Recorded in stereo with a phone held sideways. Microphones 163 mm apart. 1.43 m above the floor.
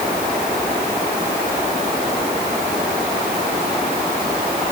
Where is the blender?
No blender in this recording.